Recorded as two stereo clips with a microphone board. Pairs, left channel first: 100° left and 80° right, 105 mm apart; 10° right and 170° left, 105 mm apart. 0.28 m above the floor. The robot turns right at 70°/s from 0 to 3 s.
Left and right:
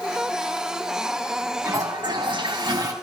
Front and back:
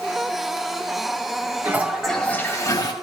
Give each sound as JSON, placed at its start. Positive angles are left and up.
{"t": 1.6, "sound": "a toilet flushing", "azimuth_deg": -125, "distance_m": 1.8}